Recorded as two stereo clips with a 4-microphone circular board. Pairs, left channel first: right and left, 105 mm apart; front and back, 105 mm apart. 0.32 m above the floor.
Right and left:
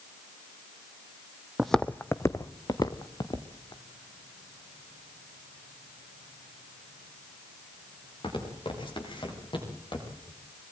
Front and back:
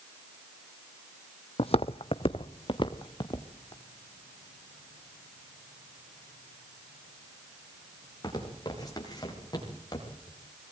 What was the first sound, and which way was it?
Footsteps, 5° left.